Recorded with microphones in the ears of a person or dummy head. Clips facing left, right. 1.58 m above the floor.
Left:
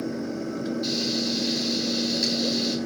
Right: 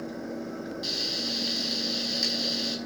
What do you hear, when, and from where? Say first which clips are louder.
0.8 s frying: left 8 dB; 10° right (ahead or behind), 8 m